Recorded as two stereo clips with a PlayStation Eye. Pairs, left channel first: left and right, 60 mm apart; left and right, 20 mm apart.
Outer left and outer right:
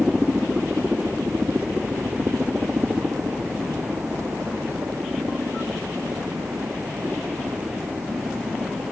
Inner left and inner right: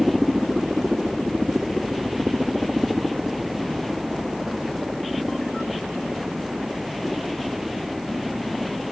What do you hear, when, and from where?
0.0 s a helicopter: 20° right (ahead or behind); by 8.9 s 45° right (ahead or behind)